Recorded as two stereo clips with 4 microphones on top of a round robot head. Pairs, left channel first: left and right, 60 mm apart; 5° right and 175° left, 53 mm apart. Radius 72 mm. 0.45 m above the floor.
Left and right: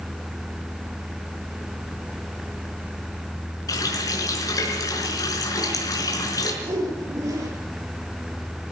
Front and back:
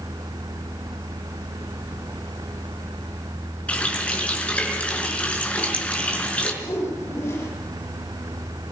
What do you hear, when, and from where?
3.7 s a running tap: 60° left, 5 m
6.6 s a whoosh: 50° right, 6 m